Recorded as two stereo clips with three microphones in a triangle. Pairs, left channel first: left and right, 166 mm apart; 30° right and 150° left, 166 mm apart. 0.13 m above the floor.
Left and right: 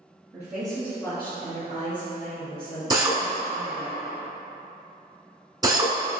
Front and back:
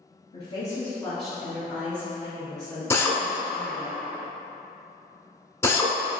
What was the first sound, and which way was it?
A woman speaking, 30° right.